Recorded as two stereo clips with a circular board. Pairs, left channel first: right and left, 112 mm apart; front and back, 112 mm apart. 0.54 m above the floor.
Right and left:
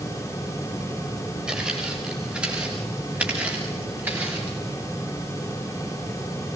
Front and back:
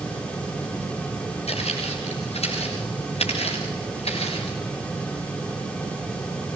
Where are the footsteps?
10° left, 9.5 m; by 4.6 s 20° left, 9.5 m.